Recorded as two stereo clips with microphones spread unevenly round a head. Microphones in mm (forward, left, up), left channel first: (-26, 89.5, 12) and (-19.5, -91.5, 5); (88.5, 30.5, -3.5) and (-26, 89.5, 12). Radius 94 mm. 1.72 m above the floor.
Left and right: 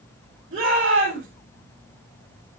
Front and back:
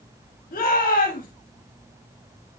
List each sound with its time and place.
0.5 s a shout: 30° right, 9.5 m